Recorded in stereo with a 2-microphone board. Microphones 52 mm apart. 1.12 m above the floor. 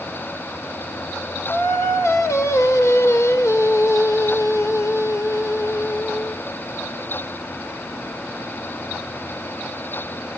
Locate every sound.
1.5 s singing: 75° left (ahead or behind), 1.9 m